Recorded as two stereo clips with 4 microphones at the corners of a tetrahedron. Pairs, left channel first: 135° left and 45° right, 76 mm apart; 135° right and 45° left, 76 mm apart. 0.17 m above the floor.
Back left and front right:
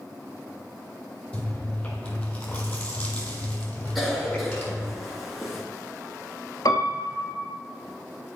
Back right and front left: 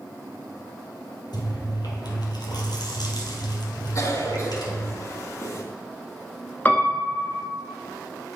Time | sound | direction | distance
1.3 | chewing | 150° right | 1.6 m
4.0 | a cough | 135° right | 1.8 m
6.7 | a piano | 160° left | 0.9 m